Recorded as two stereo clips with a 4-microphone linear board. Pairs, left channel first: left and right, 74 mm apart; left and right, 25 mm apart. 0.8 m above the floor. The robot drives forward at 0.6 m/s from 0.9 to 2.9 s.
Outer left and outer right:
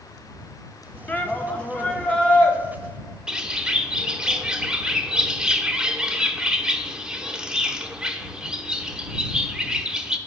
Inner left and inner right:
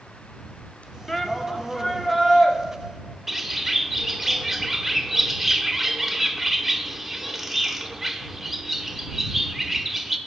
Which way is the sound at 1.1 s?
20° left (ahead or behind).